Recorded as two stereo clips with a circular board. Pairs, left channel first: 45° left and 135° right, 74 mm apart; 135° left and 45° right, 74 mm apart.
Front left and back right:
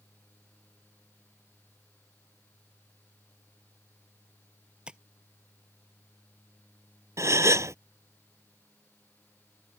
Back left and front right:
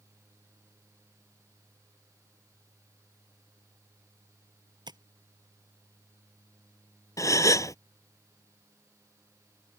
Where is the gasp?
Straight behind.